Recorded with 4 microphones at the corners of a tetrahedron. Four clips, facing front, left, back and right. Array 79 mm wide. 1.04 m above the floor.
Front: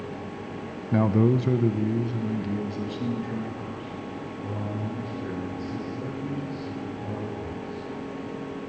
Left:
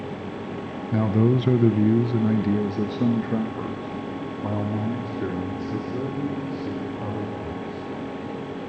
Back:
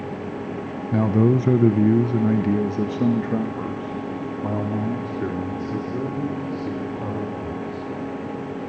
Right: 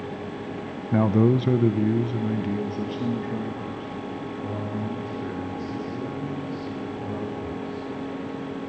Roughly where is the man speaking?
Right.